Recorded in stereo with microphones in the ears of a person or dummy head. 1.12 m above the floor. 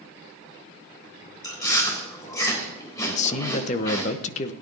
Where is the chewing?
25° left (ahead or behind), 3 m.